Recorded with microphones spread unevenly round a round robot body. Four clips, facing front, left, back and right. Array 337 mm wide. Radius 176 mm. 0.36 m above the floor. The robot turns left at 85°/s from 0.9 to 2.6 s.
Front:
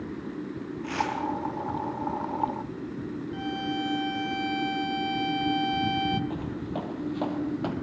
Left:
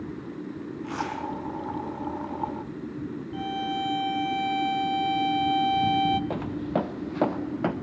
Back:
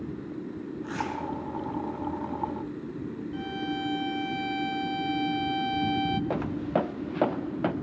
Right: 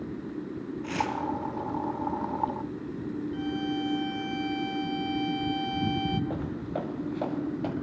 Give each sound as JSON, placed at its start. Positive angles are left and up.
{"t": 0.8, "sound": "tearing paper", "azimuth_deg": -115, "distance_m": 3.0}
{"t": 3.3, "sound": "a violin", "azimuth_deg": 65, "distance_m": 1.1}
{"t": 6.3, "sound": "footsteps", "azimuth_deg": 120, "distance_m": 1.7}